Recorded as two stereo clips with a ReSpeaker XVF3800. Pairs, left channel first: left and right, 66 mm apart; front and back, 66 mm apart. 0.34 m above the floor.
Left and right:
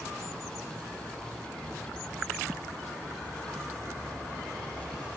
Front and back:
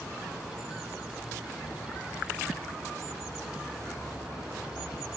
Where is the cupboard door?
60° right, 3 m.